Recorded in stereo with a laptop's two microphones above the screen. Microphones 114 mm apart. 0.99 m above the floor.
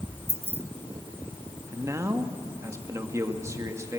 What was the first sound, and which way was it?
Keys jangling, 60° right (ahead or behind).